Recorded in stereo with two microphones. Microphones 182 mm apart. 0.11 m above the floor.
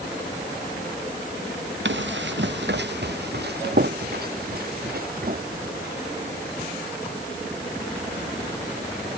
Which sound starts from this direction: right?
Running footsteps, at 1.9 s.